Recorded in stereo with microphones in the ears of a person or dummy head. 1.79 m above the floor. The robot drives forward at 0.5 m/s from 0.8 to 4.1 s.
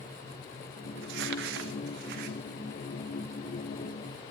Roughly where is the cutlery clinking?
I don't hear cutlery clinking.